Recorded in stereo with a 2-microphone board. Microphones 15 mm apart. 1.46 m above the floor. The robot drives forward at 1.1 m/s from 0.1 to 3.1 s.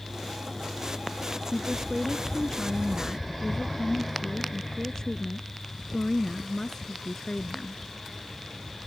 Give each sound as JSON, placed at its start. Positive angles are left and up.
{"t": 1.5, "sound": "a woman speaking", "side_deg": 35}